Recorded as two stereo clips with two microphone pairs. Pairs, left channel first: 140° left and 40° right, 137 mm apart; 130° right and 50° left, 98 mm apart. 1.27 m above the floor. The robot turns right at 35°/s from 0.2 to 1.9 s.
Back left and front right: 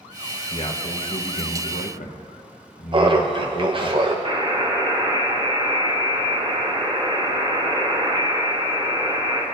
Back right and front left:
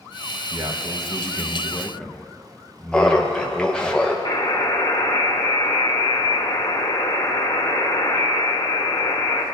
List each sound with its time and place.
0.5 s a man speaking: 95° left, 1.2 m; by 3.9 s 145° left, 1.2 m
2.9 s laughter: 55° right, 0.6 m
4.2 s a buzzer: 85° right, 1.6 m